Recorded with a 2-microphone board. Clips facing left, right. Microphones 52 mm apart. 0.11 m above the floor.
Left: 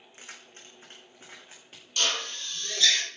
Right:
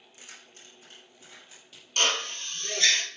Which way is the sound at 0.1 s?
40° left (ahead or behind).